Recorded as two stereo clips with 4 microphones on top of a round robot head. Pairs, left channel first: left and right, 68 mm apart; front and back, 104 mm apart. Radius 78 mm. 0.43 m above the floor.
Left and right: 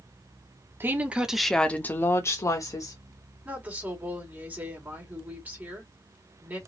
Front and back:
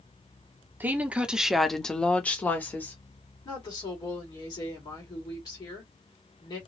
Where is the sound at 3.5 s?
30° right, 2 m.